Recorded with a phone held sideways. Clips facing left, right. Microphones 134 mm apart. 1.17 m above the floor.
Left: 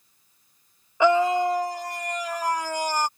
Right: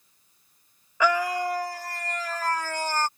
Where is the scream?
25° left (ahead or behind); by 3.1 s 15° left (ahead or behind).